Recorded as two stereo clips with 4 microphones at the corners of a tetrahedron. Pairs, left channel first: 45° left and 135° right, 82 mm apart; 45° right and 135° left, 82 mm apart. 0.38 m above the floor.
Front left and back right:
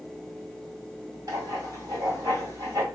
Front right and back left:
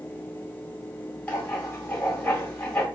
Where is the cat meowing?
No cat meowing in this recording.